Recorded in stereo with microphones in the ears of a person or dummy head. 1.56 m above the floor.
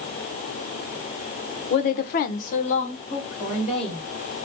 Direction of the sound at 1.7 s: 35° left (ahead or behind).